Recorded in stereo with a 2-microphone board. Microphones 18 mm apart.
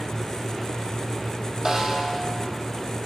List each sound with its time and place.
1.6 s a snare drum: 40° right (ahead or behind), 0.8 m